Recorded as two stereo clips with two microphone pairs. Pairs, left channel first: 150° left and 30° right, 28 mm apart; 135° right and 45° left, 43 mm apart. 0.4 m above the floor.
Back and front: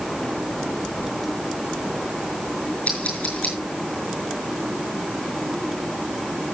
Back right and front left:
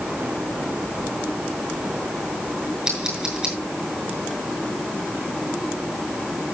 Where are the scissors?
115° left, 7 m.